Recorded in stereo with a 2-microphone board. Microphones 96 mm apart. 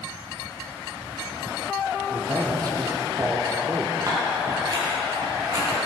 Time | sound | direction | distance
2.1 | a man speaking | 45° right (ahead or behind) | 2.5 m
4.1 | scissors | 40° right (ahead or behind) | 7 m